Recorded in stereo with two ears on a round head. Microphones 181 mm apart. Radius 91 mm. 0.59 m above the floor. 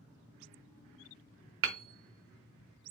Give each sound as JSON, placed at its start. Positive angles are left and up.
{"t": 1.6, "sound": "hammering", "side_deg": -65, "distance_m": 0.8}